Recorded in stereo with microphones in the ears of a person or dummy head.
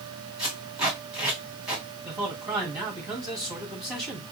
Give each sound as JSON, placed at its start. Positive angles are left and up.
{"t": 0.4, "sound": "tape being pulled", "side_deg": -5, "distance_m": 3.0}
{"t": 2.0, "sound": "a man speaking", "side_deg": 0, "distance_m": 3.0}